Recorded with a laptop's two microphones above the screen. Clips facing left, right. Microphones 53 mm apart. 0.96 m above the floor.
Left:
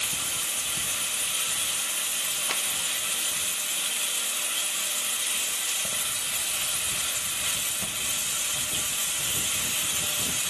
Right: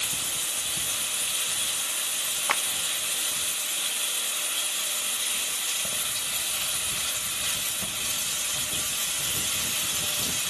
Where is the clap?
35° right (ahead or behind), 0.5 m.